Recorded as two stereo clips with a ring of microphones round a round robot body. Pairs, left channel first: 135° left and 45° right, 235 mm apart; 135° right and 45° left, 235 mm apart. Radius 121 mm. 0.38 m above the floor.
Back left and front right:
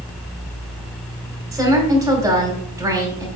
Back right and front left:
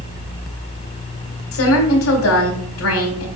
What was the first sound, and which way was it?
A woman speaking, 120° right.